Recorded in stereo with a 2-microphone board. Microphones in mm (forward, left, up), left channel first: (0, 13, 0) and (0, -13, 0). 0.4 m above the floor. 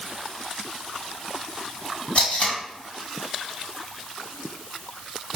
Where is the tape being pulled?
55° left (ahead or behind), 2 m.